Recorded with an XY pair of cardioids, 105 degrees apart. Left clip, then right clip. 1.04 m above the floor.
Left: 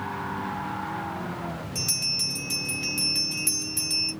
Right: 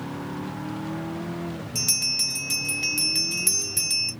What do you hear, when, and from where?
1.8 s a bell: 40° right, 1.5 m